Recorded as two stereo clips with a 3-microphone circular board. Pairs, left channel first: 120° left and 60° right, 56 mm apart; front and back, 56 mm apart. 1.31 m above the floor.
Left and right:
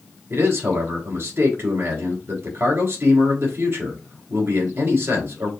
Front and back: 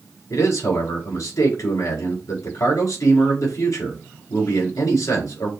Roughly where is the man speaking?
Ahead.